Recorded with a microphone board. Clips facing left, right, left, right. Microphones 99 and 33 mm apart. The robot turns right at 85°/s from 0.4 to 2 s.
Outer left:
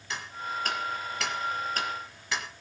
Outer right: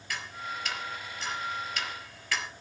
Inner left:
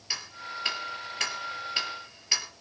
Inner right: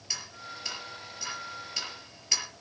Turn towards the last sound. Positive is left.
turn(degrees=20)  # may be behind; listen again after turning